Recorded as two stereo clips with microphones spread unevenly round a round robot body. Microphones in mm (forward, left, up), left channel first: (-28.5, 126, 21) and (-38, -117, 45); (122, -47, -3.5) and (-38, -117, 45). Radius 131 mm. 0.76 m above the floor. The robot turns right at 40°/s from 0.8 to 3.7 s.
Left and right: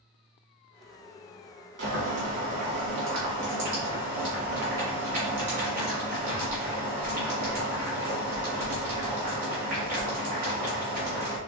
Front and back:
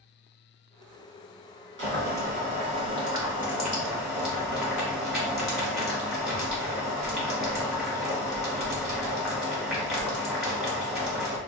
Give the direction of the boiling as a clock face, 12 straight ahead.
5 o'clock.